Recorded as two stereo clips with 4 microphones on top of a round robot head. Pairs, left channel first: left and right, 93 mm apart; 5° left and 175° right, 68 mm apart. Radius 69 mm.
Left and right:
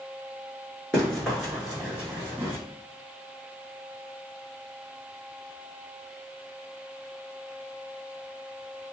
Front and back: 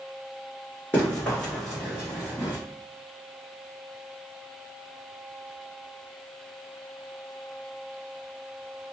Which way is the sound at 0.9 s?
20° left.